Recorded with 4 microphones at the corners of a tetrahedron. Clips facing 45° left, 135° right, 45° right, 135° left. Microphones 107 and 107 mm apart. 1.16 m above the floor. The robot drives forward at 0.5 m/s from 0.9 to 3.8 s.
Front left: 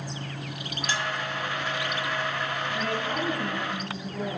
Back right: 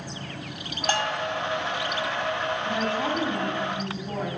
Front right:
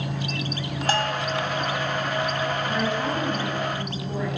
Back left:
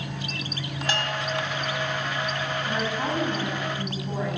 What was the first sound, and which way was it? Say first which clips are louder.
A bell: back right 5 dB, front right 5 dB; 100° right.